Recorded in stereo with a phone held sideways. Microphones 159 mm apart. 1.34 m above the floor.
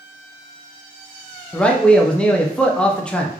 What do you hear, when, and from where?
1.5 s a man speaking: 5° left (ahead or behind), 0.5 m